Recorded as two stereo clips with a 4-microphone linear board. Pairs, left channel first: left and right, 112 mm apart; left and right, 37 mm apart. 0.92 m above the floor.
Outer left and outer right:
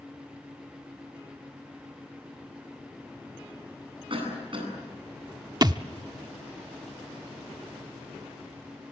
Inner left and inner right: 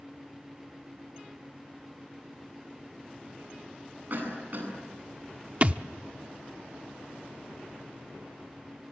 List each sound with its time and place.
4.1 s a cough: 50° right (ahead or behind), 9.5 m
5.6 s a thud: 40° right (ahead or behind), 0.6 m